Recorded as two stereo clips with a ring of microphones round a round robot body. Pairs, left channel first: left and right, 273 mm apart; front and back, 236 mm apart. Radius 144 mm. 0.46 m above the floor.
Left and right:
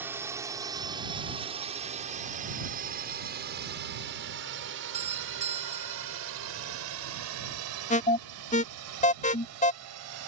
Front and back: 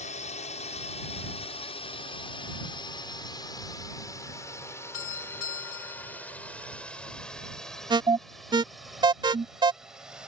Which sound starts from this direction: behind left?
An alarm, at 7.9 s.